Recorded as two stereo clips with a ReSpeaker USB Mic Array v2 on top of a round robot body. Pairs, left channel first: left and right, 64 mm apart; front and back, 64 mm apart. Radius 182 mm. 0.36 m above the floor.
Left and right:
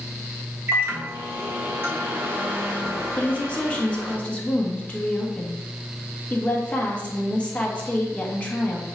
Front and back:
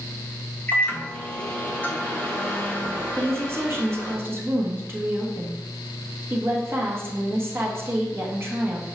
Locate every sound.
0.7 s a microwave: 55° right, 1.5 m
3.2 s a woman speaking: 150° left, 1.4 m